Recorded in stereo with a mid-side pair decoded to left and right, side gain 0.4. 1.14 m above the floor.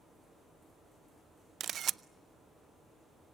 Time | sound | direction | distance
1.6 | a camera shutter | 60° right | 0.5 m